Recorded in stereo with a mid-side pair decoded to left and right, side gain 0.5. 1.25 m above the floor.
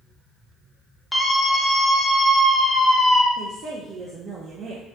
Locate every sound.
1.1 s a scream: 5° left, 1.1 m
3.4 s a woman speaking: 50° right, 0.7 m